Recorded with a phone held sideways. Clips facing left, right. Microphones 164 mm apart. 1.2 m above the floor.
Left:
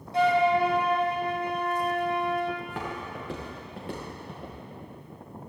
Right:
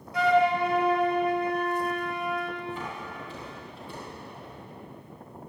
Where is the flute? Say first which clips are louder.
Even; 30° left (ahead or behind), 1.5 m.